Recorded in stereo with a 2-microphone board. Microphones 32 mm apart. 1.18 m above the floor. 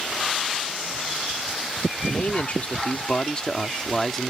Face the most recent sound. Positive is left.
turn(degrees=5)  # may be behind; listen again after turning